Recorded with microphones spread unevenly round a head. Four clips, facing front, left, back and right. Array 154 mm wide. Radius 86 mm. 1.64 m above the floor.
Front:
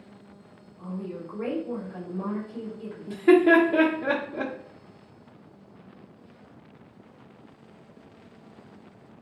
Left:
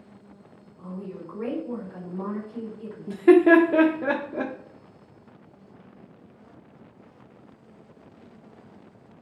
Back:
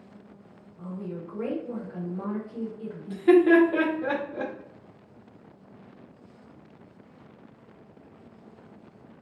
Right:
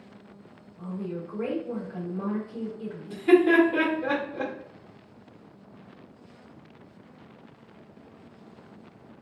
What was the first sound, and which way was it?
A woman speaking, 175° left.